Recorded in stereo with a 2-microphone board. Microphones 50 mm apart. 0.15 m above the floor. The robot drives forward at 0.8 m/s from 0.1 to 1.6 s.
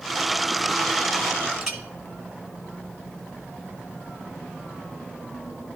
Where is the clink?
5° right (ahead or behind), 1.1 m.